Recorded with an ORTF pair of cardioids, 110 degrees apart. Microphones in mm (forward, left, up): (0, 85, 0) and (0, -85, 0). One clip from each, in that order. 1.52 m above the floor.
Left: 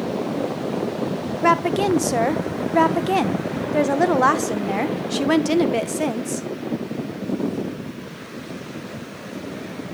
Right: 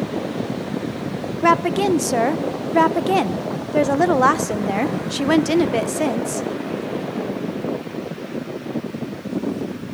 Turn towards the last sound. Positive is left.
turn(degrees=-5)